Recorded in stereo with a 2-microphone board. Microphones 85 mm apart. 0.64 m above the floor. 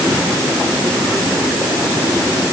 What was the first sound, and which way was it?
Only background noise.